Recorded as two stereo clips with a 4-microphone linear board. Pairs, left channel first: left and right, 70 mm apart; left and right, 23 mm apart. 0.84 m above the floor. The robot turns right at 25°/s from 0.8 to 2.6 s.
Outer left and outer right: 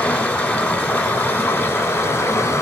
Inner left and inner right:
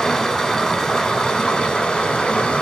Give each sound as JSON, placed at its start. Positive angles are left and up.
{"t": 0.0, "sound": "running water", "azimuth_deg": 35, "distance_m": 0.9}